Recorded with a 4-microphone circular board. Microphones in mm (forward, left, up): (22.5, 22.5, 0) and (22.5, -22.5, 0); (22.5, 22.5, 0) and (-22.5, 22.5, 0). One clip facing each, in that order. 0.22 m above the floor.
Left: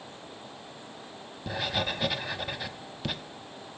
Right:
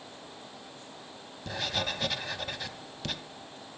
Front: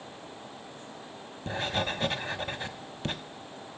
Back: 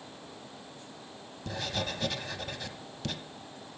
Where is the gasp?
No gasp in this recording.